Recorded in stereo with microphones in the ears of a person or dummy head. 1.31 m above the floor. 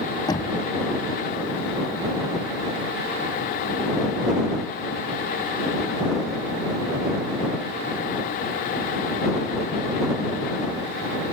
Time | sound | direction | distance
0.3 | knocking | 20° left (ahead or behind) | ?